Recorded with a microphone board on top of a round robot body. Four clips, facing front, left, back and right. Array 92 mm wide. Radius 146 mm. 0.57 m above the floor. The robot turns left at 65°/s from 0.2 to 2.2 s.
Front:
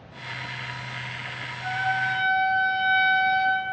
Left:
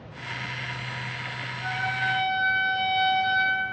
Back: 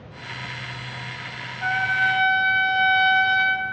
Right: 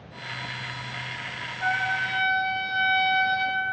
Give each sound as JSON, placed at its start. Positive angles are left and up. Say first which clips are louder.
{"t": 1.6, "sound": "a trumpet", "louder": "right 2 dB, back 4 dB", "azimuth_deg": -140, "distance_m": 0.7}